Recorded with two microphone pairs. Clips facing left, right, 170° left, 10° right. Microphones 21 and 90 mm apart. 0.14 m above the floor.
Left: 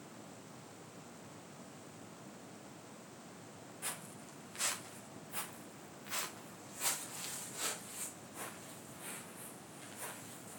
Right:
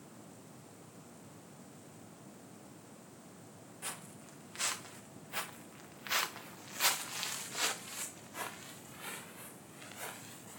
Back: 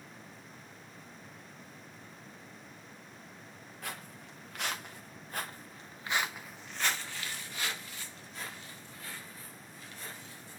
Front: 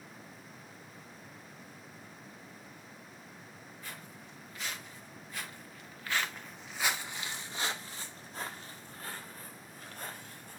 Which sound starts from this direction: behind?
Footsteps, at 3.8 s.